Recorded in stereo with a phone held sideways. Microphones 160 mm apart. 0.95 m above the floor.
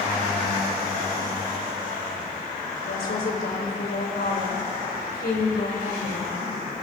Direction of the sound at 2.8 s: 85° left.